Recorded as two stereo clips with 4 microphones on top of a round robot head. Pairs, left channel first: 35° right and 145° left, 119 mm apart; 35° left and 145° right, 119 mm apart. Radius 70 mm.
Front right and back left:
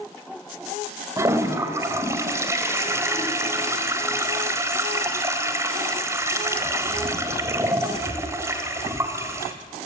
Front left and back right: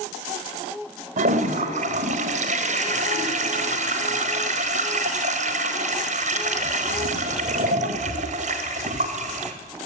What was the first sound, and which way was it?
A toilet flushing, 150° right.